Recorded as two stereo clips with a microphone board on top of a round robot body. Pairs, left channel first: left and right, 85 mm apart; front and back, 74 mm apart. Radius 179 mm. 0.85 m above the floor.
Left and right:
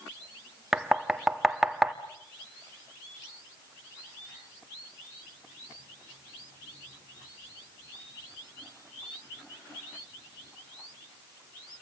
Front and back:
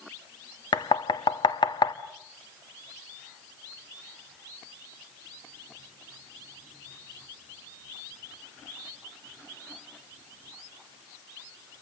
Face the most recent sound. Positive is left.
turn(degrees=-5)